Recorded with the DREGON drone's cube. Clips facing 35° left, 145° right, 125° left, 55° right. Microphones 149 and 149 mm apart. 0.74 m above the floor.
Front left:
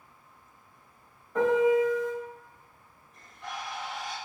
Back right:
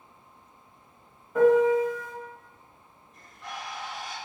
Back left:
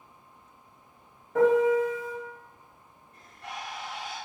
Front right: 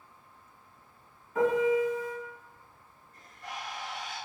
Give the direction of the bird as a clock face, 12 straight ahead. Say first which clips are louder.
Front left 1 dB, back left 1 dB; 8 o'clock.